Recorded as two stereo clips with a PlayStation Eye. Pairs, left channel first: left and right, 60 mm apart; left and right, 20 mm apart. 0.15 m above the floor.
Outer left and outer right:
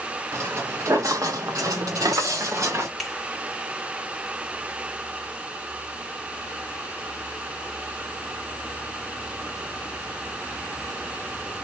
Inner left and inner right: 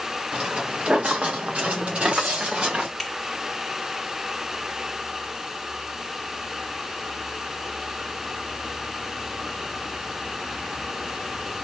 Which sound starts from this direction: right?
Footsteps, at 0.3 s.